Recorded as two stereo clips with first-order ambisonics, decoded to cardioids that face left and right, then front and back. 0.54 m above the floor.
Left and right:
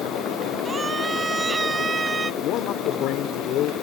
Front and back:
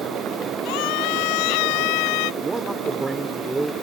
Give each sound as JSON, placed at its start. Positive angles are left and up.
{"t": 0.7, "sound": "a scream", "azimuth_deg": -10}
{"t": 2.4, "sound": "a man speaking", "azimuth_deg": 105}